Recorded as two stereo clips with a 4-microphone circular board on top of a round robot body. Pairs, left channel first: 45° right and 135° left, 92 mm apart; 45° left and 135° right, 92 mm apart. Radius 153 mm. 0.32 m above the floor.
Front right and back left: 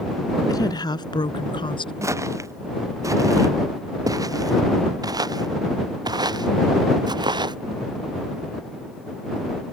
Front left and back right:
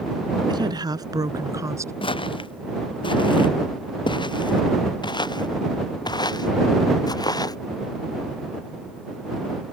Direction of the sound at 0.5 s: 95° right.